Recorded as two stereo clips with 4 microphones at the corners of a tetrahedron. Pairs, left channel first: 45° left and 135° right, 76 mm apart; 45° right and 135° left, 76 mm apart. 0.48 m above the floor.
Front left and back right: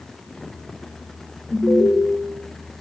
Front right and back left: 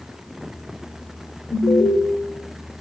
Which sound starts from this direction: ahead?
An alarm, at 1.5 s.